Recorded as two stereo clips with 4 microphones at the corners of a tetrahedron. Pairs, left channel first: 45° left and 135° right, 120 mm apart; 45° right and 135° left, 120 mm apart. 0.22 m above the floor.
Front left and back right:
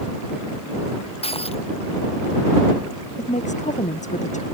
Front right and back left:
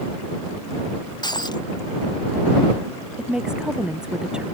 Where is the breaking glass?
10° left.